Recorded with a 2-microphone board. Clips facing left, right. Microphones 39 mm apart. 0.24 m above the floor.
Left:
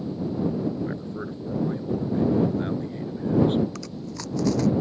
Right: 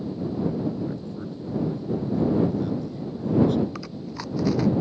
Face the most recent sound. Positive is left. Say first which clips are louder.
# right 1 dB
turn(degrees=-15)  # may be behind; listen again after turning